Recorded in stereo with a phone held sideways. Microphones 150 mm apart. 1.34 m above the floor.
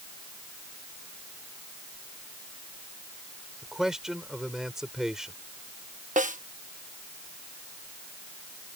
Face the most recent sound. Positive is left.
turn(degrees=-60)  # may be behind; listen again after turning